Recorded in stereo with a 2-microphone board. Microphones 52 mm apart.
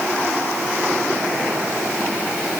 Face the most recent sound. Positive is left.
No sound to turn to.